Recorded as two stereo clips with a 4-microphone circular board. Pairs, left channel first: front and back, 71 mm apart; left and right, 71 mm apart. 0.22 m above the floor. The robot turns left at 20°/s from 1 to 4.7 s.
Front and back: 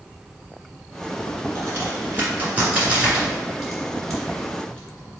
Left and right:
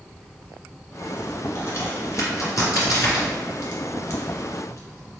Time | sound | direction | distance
1.6 | a crack | 135° left | 1.7 m